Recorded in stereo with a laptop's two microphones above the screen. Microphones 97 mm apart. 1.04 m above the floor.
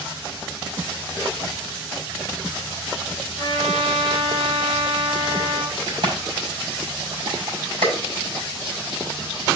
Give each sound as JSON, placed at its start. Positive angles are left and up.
{"t": 3.4, "sound": "a trumpet", "side_deg": -90, "distance_m": 2.5}
{"t": 5.9, "sound": "a crack", "side_deg": -60, "distance_m": 6.0}